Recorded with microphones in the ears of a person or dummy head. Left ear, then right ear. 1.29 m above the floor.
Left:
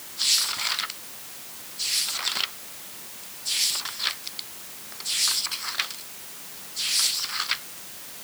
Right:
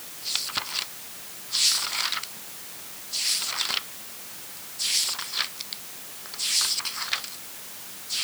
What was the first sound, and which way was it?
Only background noise.